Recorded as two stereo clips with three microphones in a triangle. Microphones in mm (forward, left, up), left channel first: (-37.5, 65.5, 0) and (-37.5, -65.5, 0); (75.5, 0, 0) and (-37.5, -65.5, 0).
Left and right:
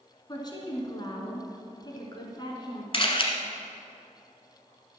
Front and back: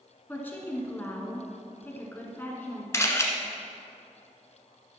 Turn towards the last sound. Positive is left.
turn(degrees=85)